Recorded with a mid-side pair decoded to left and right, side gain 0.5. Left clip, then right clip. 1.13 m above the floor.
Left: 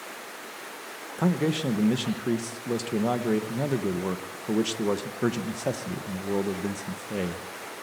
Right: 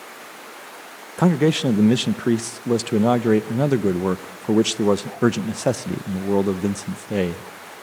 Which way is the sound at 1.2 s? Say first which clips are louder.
Right 8 dB; 50° right.